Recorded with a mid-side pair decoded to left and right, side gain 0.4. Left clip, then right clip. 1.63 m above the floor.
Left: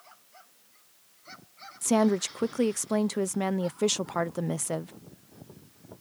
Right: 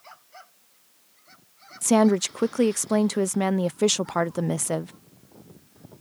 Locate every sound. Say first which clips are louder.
1.8 s a woman speaking: right 5 dB; 35° right